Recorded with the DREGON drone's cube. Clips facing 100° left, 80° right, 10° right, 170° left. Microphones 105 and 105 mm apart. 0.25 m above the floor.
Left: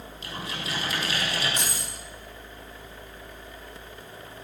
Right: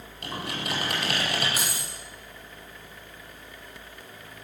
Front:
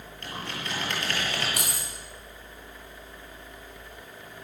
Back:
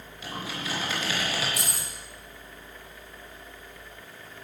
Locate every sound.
0.2 s typing on a keyboard: 105° right, 8.5 m
1.6 s keys jangling: 5° left, 7 m